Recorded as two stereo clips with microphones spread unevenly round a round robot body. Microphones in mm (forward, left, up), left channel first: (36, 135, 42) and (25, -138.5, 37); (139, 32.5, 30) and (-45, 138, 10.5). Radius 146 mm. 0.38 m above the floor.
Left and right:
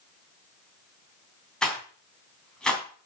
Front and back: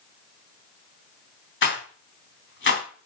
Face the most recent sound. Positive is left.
turn(degrees=0)